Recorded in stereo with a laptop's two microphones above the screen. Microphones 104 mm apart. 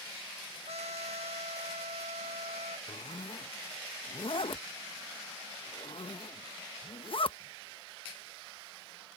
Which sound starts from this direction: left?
A zipper, at 2.9 s.